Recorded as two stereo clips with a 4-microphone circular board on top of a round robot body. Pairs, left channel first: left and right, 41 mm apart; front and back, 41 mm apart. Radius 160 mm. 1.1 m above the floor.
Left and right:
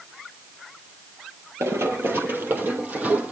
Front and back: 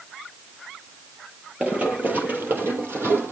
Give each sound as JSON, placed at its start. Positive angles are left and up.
{"t": 1.6, "sound": "running footsteps", "azimuth_deg": -110, "distance_m": 1.6}